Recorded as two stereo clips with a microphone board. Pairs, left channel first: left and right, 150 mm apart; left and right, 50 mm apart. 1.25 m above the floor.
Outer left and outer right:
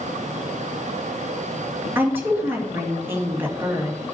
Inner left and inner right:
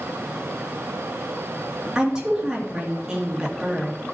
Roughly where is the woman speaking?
Centre.